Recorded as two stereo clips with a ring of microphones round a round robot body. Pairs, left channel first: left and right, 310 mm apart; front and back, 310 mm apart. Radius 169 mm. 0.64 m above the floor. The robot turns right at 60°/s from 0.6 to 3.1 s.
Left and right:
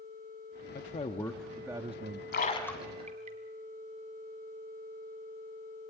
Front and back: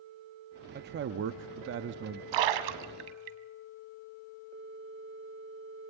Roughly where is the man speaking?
Behind left.